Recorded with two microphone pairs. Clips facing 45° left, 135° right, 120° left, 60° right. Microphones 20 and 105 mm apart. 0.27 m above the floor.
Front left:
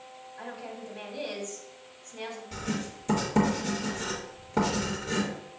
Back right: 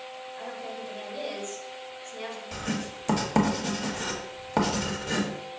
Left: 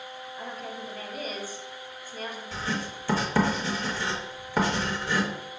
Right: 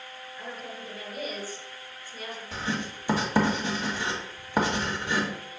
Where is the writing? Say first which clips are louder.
Back right 2 dB, right 1 dB; 125° right, 1.5 m.